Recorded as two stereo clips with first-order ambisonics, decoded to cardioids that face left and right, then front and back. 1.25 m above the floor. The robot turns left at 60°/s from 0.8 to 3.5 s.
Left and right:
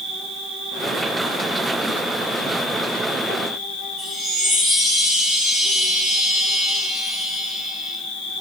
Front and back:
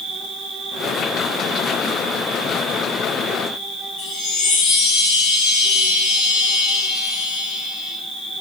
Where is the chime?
Straight ahead, 4.5 m.